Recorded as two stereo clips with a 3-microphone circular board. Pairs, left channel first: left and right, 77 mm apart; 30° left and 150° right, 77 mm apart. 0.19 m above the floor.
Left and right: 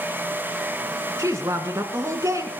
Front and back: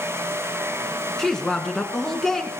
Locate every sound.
1.2 s a woman speaking: 50° right, 1.7 m